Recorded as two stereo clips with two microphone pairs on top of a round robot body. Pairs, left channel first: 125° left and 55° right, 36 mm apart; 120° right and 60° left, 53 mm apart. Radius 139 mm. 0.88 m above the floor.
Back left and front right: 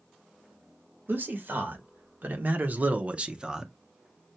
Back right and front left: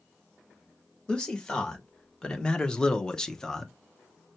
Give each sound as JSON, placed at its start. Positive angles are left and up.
{"t": 1.1, "sound": "a man speaking", "azimuth_deg": -55, "distance_m": 1.9}